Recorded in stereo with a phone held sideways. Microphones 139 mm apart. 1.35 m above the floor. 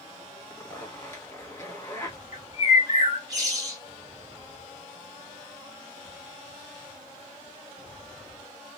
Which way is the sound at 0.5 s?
15° left (ahead or behind).